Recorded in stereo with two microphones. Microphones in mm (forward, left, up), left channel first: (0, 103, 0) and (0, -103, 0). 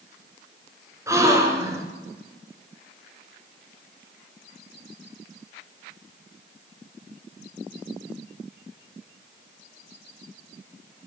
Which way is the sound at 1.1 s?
15° right (ahead or behind).